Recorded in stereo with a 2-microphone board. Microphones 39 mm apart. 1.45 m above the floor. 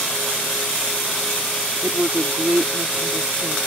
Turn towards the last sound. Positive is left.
turn(degrees=-55)  # may be behind; listen again after turning